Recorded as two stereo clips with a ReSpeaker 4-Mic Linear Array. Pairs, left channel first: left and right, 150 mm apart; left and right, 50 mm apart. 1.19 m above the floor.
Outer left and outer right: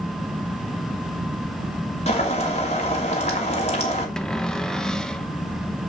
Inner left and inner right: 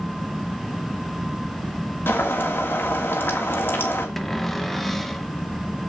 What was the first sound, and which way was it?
Boiling, 50° left (ahead or behind).